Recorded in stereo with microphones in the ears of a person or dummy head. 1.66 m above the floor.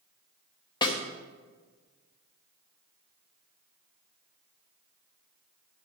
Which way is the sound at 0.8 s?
25° left (ahead or behind).